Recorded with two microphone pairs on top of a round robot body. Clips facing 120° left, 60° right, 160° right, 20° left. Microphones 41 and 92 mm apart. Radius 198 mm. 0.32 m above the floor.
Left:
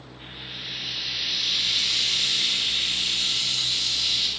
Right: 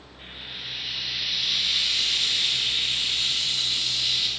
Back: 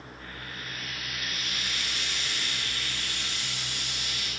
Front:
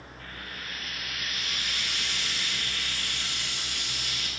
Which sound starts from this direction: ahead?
Frying, at 0.2 s.